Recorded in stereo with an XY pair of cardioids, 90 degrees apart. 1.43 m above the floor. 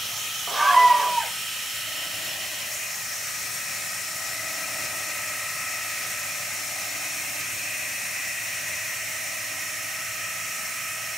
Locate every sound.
0.5 s a scream: 30° right, 1.5 m